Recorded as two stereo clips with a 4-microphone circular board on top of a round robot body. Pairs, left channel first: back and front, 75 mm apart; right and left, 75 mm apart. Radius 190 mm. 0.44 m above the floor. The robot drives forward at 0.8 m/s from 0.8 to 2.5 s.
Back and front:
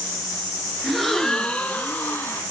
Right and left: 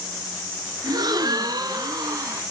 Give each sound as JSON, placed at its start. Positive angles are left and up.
{"t": 0.8, "sound": "a gasp", "azimuth_deg": 85, "distance_m": 2.5}